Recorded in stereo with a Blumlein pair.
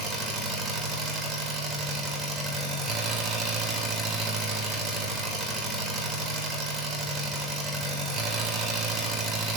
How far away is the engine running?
About 3 m.